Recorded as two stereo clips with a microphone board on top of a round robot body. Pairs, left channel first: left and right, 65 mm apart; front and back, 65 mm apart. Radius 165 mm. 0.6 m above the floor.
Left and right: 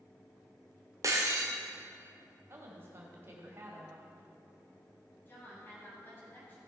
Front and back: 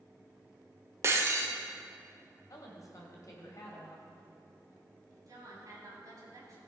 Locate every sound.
1.0 s breaking glass: 130° right, 1.2 m
2.5 s a woman speaking: 40° right, 1.9 m
5.3 s a woman speaking: 150° left, 3.5 m